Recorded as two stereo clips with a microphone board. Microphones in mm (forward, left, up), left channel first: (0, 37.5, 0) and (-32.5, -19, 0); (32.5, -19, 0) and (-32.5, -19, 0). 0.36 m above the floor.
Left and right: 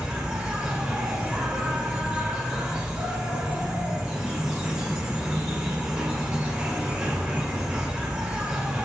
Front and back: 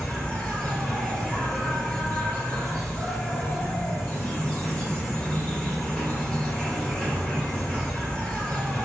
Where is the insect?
55° right, 1.8 m.